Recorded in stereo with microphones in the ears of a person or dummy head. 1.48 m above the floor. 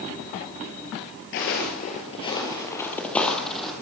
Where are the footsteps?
45° left (ahead or behind), 2 m; by 3.7 s centre (ahead or behind), 3.5 m.